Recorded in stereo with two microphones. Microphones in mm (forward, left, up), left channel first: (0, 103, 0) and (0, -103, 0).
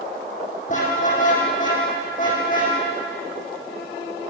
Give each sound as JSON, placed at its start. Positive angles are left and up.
{"t": 0.7, "sound": "a car horn", "side_deg": 40, "distance_m": 8.0}